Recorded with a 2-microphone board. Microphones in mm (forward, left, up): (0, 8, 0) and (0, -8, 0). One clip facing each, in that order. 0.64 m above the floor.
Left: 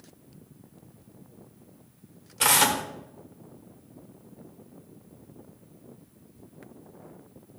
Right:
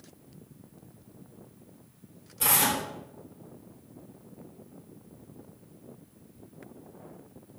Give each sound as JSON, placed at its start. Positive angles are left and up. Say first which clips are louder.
{"t": 2.4, "sound": "tearing paper", "louder": "left 5 dB", "side_deg": 45, "distance_m": 1.2}